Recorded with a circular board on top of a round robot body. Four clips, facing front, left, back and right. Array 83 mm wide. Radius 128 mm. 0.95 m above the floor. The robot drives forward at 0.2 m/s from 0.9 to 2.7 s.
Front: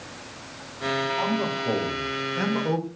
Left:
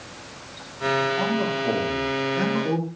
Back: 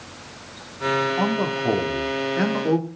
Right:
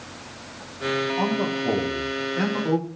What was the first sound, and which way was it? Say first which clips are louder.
A man speaking: even, back 3 dB; straight behind.